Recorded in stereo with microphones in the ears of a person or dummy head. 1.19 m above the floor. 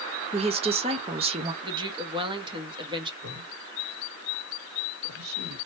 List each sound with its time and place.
0.3 s a woman speaking: 25° right (ahead or behind), 0.6 m
1.6 s a woman speaking: 25° right (ahead or behind), 0.9 m
3.2 s a man speaking: 60° right (ahead or behind), 2 m